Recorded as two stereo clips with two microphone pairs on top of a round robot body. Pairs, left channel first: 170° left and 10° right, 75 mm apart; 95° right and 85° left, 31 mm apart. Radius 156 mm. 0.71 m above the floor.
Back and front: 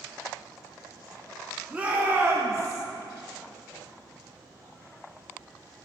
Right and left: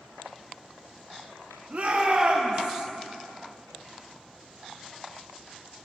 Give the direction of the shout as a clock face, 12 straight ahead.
10 o'clock.